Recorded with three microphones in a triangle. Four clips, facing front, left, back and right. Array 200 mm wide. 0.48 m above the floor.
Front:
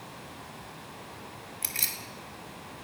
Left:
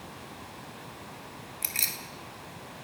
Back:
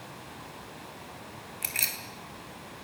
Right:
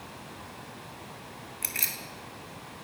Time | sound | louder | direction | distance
1.6 | keys jangling | right 1 dB, back 3 dB | 155° right | 2 m